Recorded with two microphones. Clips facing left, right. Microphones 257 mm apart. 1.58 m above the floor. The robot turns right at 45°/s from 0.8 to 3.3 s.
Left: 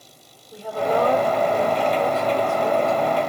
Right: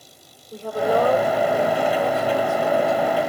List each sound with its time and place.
0.5 s a woman speaking: 40° right, 5 m; by 3.3 s 75° left, 5 m